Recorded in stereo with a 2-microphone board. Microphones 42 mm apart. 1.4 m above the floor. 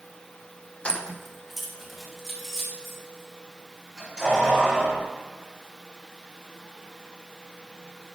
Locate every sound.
0.8 s keys jangling: 30° left (ahead or behind), 0.6 m; by 5.0 s 15° right (ahead or behind), 5.5 m